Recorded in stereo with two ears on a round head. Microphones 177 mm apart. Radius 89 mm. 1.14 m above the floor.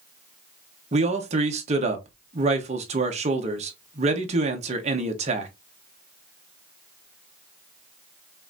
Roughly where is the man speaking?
Right.